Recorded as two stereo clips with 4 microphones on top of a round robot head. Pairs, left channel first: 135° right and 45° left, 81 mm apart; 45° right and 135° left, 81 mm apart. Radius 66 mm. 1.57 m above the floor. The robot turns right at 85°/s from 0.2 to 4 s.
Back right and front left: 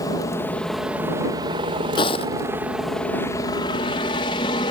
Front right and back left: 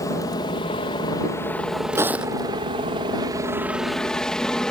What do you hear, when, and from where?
0.0 s a helicopter: 90° right; by 4.7 s 130° right
1.9 s footsteps: 170° right; by 2.5 s 125° right